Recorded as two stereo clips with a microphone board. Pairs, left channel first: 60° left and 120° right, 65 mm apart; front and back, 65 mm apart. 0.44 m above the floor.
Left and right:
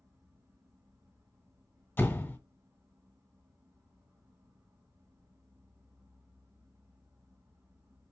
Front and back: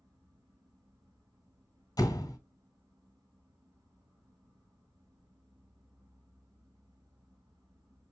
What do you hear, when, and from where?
0.0 s an insect: 165° right, 2.5 m
2.0 s a door slam: 10° left, 1.6 m